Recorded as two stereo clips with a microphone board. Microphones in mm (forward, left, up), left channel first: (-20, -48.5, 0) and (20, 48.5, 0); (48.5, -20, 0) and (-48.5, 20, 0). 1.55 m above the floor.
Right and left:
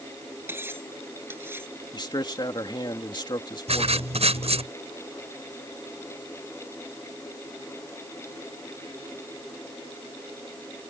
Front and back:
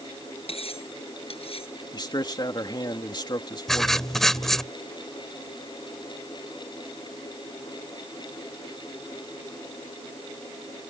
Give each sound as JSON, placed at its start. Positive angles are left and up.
{"t": 0.5, "sound": "cutlery clinking", "azimuth_deg": 0}
{"t": 1.9, "sound": "a man speaking", "azimuth_deg": -70}
{"t": 3.7, "sound": "writing", "azimuth_deg": 65}